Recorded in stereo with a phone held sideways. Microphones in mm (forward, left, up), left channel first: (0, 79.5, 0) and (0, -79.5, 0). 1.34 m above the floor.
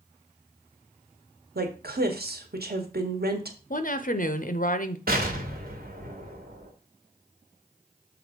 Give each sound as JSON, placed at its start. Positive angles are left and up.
{"t": 1.6, "sound": "a woman speaking", "side_deg": -75, "distance_m": 1.3}
{"t": 3.7, "sound": "a woman speaking", "side_deg": 55, "distance_m": 0.7}
{"t": 5.1, "sound": "an explosion", "side_deg": -70, "distance_m": 1.6}